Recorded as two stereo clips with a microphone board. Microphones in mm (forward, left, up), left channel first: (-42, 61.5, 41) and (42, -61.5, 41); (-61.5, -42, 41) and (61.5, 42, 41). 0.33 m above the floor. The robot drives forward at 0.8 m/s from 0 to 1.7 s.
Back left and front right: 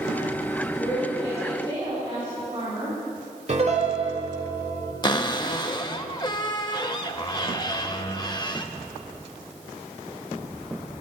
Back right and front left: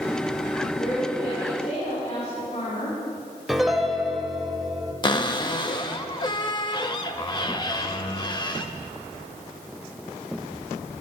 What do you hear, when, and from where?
0.8 s a woman speaking: 100° right, 4 m; by 3.0 s 110° right, 4.5 m
3.5 s a piano: 55° right, 1.0 m
5.0 s a cupboard door: 170° left, 0.7 m